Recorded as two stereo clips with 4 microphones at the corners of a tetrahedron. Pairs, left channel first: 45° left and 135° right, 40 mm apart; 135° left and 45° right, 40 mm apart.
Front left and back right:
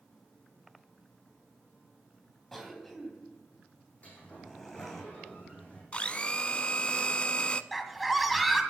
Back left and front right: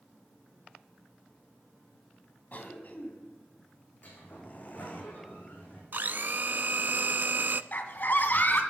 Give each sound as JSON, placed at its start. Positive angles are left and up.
{"t": 2.5, "sound": "a cough", "azimuth_deg": 125, "distance_m": 2.0}
{"t": 4.0, "sound": "a sliding door", "azimuth_deg": 95, "distance_m": 5.0}
{"t": 5.9, "sound": "a blender", "azimuth_deg": -15, "distance_m": 0.5}
{"t": 7.7, "sound": "a scream", "azimuth_deg": 135, "distance_m": 1.9}